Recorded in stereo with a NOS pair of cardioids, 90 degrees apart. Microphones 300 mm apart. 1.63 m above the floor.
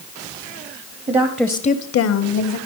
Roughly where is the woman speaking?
Ahead right.